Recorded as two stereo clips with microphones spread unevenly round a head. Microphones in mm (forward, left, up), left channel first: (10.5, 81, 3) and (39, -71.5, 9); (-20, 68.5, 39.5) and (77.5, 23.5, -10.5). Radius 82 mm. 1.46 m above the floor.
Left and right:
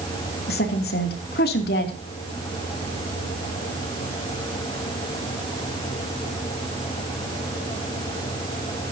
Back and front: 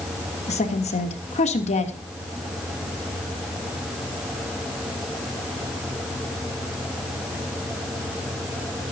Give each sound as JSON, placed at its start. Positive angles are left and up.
{"t": 0.5, "sound": "a woman speaking", "azimuth_deg": 135, "distance_m": 3.0}